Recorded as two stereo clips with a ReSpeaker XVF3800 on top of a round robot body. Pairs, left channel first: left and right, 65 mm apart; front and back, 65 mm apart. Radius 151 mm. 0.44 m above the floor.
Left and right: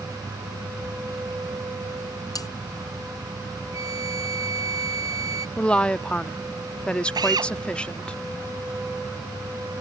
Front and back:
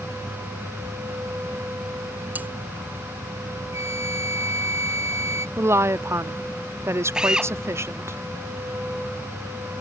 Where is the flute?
130° right.